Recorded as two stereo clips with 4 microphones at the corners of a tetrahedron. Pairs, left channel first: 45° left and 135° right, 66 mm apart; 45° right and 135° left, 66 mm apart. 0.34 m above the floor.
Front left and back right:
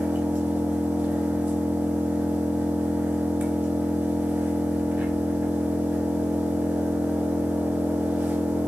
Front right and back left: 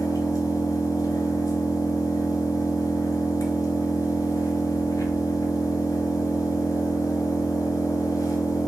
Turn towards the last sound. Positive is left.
turn(degrees=-75)